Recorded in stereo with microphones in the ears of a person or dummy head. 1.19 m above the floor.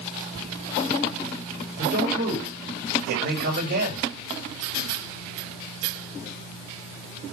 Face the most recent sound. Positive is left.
turn(degrees=-55)  # may be behind; listen again after turning